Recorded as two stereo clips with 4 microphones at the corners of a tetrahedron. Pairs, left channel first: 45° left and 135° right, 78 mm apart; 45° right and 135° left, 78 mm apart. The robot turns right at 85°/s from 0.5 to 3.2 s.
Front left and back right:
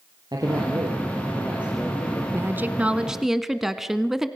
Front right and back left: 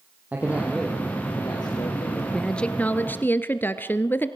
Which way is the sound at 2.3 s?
125° right.